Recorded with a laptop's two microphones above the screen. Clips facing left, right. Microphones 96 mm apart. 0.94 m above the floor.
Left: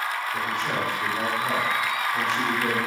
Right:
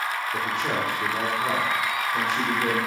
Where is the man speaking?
40° right (ahead or behind), 2.5 m; by 2.8 s 10° right (ahead or behind), 2.5 m.